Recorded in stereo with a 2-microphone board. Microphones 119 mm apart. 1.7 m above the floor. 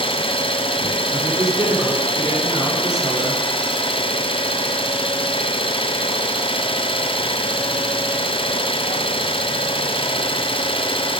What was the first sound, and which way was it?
An engine running, 50° left (ahead or behind).